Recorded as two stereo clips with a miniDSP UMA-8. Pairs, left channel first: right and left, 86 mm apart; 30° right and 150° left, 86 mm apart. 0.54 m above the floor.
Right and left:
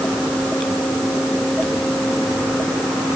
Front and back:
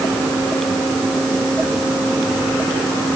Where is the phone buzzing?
No phone buzzing in this recording.